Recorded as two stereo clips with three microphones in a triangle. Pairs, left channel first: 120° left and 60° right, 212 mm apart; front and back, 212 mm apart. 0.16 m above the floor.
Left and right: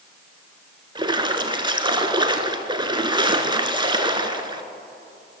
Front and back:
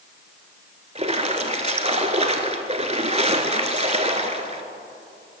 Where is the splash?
130° right, 0.6 m.